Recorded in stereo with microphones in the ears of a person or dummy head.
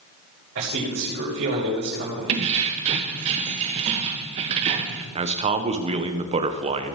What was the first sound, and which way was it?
A man speaking, 70° right (ahead or behind).